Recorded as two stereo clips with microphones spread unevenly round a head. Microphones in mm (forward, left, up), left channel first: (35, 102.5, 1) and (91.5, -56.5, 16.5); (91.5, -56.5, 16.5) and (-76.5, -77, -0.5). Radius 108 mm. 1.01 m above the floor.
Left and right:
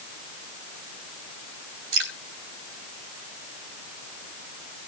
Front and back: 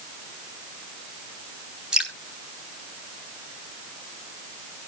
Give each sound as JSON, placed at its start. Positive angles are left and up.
{"t": 1.9, "sound": "dripping", "azimuth_deg": -90, "distance_m": 4.0}